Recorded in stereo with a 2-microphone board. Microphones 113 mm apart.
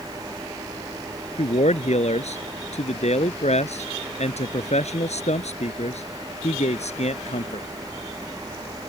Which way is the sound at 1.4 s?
80° left.